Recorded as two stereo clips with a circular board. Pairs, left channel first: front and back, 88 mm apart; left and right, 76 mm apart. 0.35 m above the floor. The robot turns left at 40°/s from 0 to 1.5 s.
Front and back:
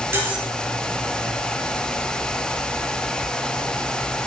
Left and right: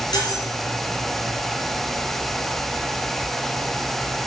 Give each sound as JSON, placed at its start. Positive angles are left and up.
{"t": 0.1, "sound": "cutlery clinking", "azimuth_deg": 115, "distance_m": 2.5}